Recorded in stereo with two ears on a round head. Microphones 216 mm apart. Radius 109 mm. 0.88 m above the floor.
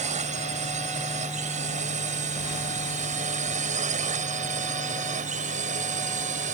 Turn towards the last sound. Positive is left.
turn(degrees=-30)  # may be behind; listen again after turning